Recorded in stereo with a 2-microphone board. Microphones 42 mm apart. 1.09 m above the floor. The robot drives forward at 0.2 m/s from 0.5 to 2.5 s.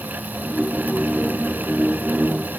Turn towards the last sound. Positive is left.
No sound to turn to.